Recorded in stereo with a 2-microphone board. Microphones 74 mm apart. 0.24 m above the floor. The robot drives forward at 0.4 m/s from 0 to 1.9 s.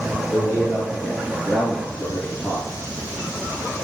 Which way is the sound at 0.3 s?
35° left (ahead or behind).